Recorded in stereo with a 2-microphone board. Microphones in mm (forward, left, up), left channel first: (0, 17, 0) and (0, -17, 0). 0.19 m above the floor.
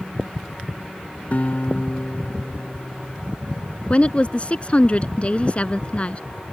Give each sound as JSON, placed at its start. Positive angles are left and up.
{"t": 1.3, "sound": "a guitar", "side_deg": 50}
{"t": 3.9, "sound": "a woman speaking", "side_deg": 35}